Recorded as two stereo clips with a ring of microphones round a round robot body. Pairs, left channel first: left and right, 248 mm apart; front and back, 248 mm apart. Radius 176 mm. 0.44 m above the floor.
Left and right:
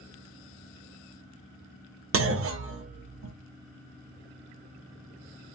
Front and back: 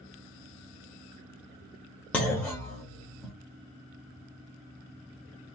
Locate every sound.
2.1 s a clunk: 85° right, 0.8 m